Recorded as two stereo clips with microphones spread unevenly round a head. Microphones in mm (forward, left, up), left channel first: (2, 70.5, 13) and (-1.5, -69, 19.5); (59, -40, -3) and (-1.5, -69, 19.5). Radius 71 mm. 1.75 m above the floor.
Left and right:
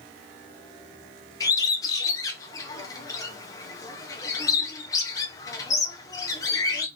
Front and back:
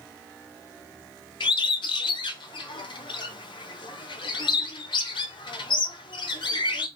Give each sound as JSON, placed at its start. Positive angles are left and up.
{"t": 1.4, "sound": "a bird", "azimuth_deg": 20, "distance_m": 0.6}